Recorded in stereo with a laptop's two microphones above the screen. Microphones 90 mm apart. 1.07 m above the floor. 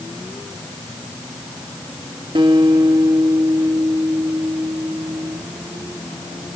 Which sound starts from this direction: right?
A guitar, at 2.4 s.